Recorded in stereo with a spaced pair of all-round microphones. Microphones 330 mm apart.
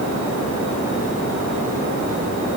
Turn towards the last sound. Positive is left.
No sound to turn to.